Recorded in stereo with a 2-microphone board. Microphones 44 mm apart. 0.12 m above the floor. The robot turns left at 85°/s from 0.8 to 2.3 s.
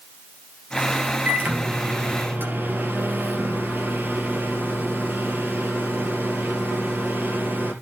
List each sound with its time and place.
1.2 s a microwave: 30° right, 2.5 m; by 7.7 s 120° right, 2.5 m